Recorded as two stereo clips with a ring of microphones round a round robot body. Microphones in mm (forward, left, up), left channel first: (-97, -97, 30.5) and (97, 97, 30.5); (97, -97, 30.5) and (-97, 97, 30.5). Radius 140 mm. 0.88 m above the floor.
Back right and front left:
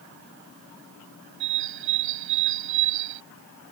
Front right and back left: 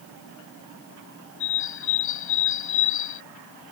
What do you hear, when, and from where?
1.4 s a bird: straight ahead